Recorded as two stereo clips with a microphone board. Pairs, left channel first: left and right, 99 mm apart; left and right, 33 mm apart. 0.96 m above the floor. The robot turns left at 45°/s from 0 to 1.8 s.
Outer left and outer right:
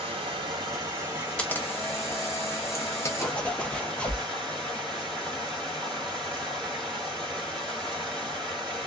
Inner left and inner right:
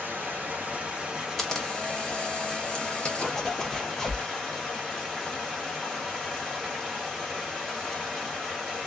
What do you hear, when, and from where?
0.0 s running water: 105° right, 1.4 m; by 8.9 s 175° left, 1.4 m
1.4 s a camera shutter: 10° left (ahead or behind), 0.7 m; by 3.3 s 30° left (ahead or behind), 0.7 m
3.2 s a zipper: 10° left (ahead or behind), 0.6 m